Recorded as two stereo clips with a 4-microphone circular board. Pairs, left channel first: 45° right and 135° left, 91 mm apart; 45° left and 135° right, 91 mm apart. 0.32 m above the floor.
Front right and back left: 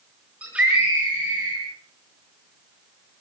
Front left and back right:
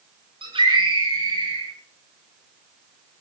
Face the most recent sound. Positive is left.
turn(degrees=-150)